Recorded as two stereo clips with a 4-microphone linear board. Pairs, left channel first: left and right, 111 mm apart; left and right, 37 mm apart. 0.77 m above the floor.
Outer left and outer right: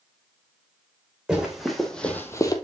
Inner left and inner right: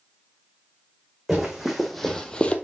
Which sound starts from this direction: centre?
Running footsteps, at 1.3 s.